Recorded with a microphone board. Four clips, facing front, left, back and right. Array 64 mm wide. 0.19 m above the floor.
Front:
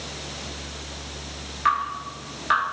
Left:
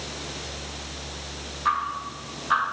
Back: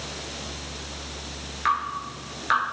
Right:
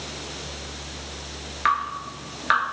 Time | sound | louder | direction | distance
1.6 | dripping | right 2 dB, front 2 dB | 95° right | 1.2 m